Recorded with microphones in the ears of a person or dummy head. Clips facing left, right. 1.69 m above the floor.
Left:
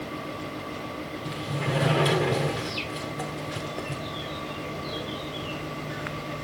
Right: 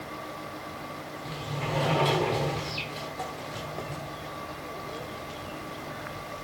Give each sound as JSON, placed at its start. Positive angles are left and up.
{"t": 1.2, "sound": "a sliding door", "side_deg": 15, "distance_m": 1.4}